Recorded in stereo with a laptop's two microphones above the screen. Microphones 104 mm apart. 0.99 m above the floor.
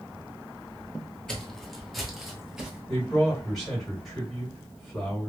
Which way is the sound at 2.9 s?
Centre (ahead or behind).